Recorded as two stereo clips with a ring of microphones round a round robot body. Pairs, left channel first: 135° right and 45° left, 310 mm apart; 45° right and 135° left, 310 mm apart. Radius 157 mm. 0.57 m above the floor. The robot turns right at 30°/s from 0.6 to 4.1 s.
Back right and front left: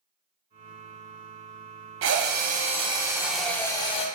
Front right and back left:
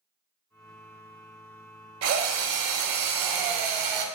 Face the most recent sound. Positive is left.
turn(degrees=155)